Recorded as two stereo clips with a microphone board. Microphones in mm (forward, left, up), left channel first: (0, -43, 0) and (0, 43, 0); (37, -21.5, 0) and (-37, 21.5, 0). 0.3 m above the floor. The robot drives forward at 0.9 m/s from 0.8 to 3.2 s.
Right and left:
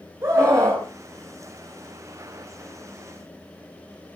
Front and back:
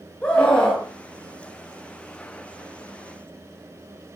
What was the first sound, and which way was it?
A scream, 40° left.